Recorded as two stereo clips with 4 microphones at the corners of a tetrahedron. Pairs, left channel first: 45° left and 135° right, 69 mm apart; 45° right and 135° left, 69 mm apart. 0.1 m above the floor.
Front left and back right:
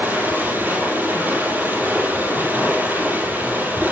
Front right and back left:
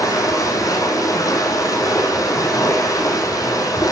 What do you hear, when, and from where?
0.0 s running water: 75° right, 3.5 m